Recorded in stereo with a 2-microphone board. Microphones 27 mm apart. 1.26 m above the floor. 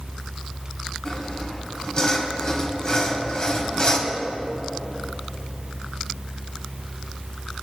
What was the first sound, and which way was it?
Sawing, 35° left (ahead or behind).